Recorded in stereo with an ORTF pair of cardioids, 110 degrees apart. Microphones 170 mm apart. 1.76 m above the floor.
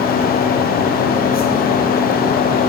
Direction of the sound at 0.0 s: 65° left.